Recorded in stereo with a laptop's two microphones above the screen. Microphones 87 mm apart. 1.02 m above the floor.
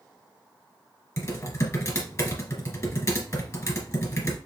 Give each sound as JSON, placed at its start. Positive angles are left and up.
{"t": 1.2, "sound": "typing on a keyboard", "side_deg": 35, "distance_m": 1.9}